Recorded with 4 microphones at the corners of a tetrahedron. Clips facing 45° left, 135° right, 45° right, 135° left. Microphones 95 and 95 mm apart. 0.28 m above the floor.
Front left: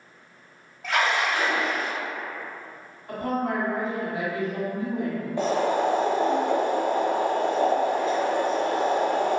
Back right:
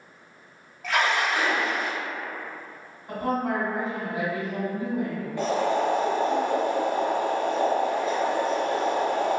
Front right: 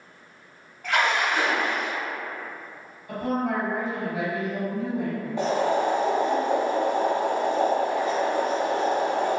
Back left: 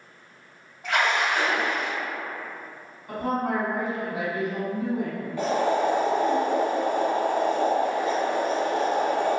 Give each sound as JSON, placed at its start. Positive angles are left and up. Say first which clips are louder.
{"t": 0.8, "sound": "a splash", "louder": "even, even", "azimuth_deg": 130, "distance_m": 1.3}
{"t": 3.1, "sound": "a woman speaking", "louder": "even, even", "azimuth_deg": 150, "distance_m": 1.7}
{"t": 5.4, "sound": "boiling", "louder": "front left 1 dB, even", "azimuth_deg": -5, "distance_m": 0.6}